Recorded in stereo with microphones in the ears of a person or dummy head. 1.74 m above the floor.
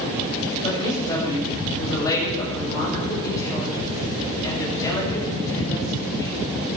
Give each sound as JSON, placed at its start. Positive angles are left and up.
{"t": 0.6, "sound": "a woman speaking", "side_deg": 20, "distance_m": 7.5}